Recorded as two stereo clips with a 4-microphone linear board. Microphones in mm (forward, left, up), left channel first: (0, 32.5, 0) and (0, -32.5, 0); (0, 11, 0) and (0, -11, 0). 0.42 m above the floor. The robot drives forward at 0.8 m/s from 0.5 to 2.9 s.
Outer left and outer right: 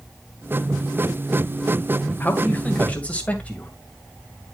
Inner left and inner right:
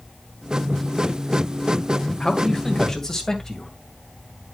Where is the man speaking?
25° left (ahead or behind), 1.9 m; by 3.7 s 20° left (ahead or behind), 2.5 m.